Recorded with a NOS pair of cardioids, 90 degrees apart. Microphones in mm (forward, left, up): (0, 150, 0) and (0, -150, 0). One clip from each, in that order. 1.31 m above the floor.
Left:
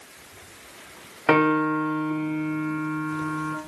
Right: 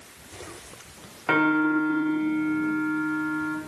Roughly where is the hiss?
I don't hear a hiss.